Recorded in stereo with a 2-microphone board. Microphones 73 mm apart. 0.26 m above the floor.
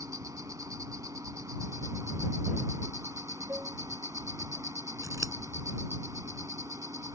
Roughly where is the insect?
Right.